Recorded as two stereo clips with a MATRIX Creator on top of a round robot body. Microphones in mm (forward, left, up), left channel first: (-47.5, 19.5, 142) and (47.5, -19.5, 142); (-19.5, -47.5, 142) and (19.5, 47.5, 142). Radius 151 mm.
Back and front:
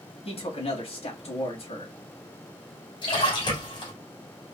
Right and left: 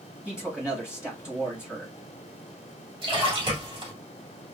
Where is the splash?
115° left, 2.5 m.